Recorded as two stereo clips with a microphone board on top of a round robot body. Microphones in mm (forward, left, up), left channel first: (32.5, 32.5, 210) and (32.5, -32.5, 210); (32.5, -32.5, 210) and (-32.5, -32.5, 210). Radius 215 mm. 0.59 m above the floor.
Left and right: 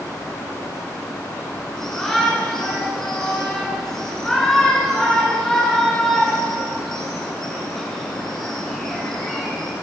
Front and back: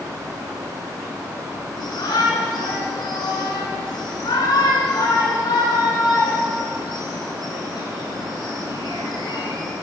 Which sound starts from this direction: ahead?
A shout, at 1.8 s.